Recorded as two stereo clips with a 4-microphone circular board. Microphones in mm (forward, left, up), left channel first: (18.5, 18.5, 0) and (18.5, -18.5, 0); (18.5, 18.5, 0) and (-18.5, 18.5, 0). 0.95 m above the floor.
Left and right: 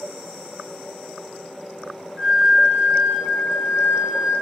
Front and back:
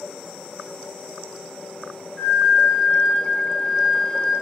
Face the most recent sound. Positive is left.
turn(degrees=-80)